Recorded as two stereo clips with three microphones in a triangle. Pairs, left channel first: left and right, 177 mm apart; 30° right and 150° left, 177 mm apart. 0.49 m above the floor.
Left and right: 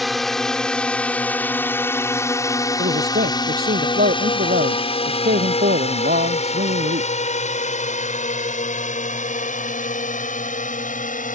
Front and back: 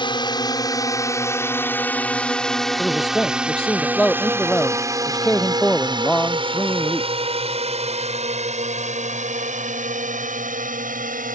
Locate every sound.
0.0 s a drone: straight ahead; by 11.3 s 120° left
2.8 s a man speaking: 115° right